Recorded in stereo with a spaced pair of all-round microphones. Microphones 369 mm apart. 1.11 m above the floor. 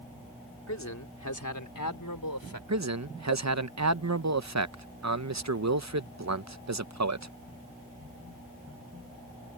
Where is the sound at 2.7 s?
45° right (ahead or behind).